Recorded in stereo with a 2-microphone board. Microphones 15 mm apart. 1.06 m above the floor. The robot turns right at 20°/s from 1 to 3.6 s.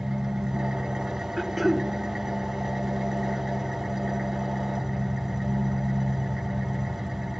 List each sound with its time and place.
0.0 s an engine running: 65° right, 1.5 m; by 7.4 s 10° right, 1.5 m
1.4 s throat clearing: 10° right (ahead or behind), 0.6 m; by 1.9 s 5° right (ahead or behind), 0.6 m